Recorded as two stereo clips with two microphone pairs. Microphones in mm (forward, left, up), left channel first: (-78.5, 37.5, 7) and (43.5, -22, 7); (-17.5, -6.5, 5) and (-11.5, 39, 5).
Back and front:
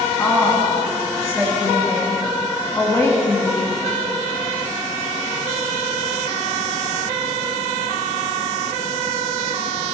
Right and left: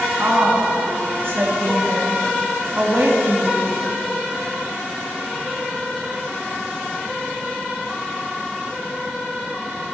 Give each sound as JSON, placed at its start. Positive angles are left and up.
{"t": 0.2, "sound": "a woman speaking", "azimuth_deg": 90, "distance_m": 3.0}